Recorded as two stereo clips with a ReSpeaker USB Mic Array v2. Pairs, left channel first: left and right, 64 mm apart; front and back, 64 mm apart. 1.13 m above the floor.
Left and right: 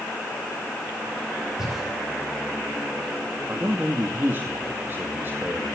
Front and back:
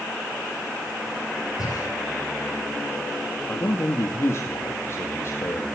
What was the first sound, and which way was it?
Breathing, 5° right.